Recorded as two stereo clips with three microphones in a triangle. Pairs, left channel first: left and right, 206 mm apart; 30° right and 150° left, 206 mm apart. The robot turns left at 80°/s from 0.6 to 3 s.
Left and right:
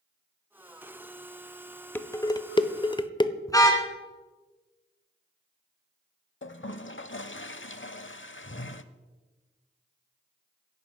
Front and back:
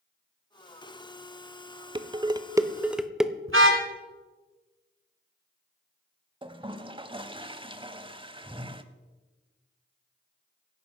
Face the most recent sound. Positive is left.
turn(degrees=90)